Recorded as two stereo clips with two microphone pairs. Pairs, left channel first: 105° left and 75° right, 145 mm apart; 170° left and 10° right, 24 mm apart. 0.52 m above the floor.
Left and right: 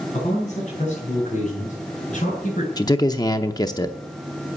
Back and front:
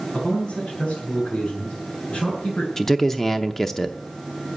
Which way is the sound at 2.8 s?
120° left.